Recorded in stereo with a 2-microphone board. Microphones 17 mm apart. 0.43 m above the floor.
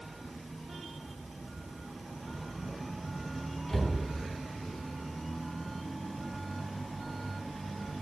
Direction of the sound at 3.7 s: 25° left (ahead or behind).